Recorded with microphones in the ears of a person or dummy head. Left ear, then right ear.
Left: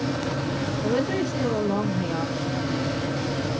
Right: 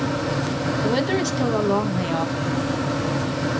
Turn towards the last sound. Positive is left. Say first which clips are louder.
# right 2 dB
turn(degrees=-55)  # may be behind; listen again after turning